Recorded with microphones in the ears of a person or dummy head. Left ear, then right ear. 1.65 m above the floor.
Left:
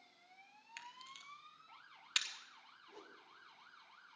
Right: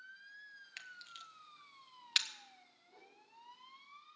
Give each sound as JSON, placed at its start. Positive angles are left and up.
{"t": 0.8, "sound": "a camera shutter", "side_deg": -10, "distance_m": 0.6}
{"t": 2.9, "sound": "a whoosh", "side_deg": 65, "distance_m": 1.2}